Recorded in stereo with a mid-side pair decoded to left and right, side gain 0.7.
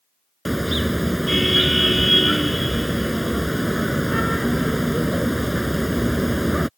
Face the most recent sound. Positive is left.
turn(degrees=-5)